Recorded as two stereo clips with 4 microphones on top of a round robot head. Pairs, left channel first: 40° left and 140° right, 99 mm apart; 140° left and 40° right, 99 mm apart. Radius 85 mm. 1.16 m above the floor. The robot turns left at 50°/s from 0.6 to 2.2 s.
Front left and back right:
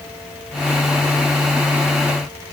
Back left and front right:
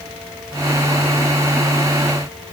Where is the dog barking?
No dog barking in this recording.